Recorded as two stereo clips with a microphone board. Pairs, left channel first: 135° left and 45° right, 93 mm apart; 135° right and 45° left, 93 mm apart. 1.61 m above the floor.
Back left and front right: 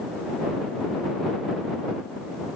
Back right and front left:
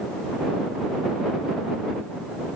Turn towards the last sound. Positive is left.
No sound to turn to.